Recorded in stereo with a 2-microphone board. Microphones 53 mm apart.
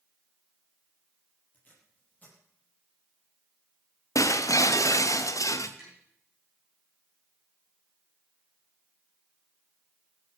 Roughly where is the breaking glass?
Left.